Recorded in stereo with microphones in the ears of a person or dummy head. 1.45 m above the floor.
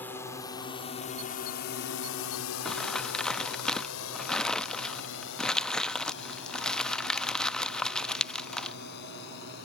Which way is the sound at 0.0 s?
5° left (ahead or behind).